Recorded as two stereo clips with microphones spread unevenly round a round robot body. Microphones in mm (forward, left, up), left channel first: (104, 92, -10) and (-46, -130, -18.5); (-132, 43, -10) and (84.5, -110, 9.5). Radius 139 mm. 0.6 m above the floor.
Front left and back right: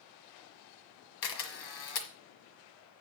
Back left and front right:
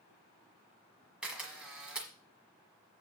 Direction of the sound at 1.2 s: 50° left.